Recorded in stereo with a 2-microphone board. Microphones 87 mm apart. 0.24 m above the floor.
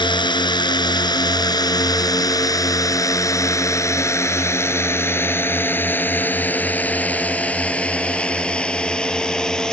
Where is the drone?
60° left (ahead or behind); by 9.7 s 5° left (ahead or behind).